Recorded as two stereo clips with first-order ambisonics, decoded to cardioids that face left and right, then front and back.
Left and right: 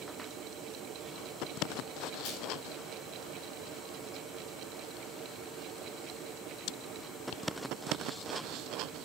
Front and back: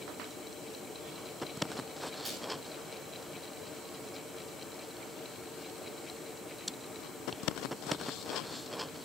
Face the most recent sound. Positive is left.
turn(degrees=100)